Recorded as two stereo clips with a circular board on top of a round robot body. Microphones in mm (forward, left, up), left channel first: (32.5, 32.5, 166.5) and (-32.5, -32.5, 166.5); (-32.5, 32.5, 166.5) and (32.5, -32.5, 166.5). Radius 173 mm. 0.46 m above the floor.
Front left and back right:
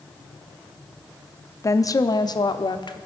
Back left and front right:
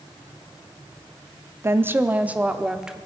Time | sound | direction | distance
1.6 | a woman speaking | 5° left | 1.1 m